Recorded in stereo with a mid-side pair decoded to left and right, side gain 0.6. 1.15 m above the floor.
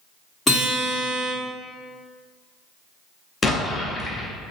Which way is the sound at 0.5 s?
15° left.